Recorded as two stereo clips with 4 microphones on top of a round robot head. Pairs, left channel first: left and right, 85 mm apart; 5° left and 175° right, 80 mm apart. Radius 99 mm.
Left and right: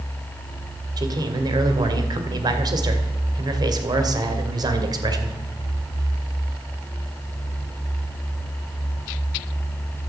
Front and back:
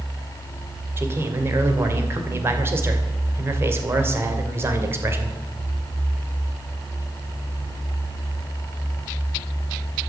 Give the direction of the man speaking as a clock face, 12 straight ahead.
4 o'clock.